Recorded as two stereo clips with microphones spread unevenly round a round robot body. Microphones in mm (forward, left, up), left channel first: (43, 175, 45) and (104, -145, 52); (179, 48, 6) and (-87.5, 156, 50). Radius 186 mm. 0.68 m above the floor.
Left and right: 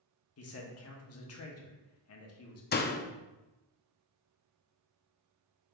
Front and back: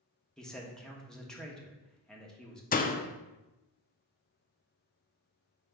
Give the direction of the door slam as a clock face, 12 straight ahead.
11 o'clock.